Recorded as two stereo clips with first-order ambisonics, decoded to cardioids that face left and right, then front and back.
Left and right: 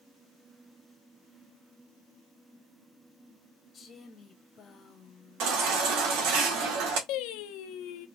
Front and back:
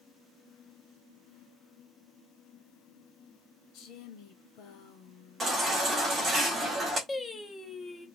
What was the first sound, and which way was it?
A woman speaking, 25° left.